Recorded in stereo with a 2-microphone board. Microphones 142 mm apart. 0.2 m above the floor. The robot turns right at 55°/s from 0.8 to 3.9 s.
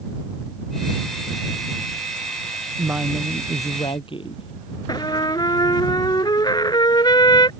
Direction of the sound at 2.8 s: 25° right.